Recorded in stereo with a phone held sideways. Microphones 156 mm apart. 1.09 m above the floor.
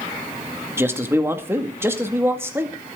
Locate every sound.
0.8 s a man speaking: 15° right (ahead or behind), 2 m